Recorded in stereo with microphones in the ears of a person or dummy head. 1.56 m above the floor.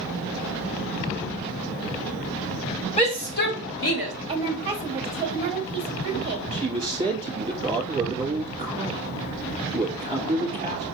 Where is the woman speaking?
25° right (ahead or behind), 1.2 m.